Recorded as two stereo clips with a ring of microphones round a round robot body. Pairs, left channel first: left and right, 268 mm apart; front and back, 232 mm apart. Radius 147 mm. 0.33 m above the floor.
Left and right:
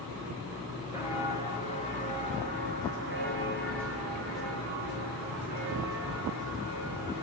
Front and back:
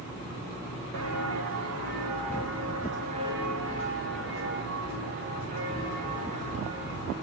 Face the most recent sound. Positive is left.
turn(degrees=-110)